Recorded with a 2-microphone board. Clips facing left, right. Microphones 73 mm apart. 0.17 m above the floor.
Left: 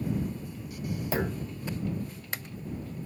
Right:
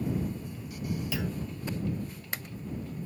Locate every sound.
1.1 s a clunk: 40° left (ahead or behind)